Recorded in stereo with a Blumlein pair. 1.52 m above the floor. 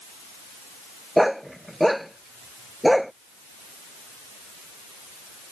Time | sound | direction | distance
1.2 | a dog barking | straight ahead | ?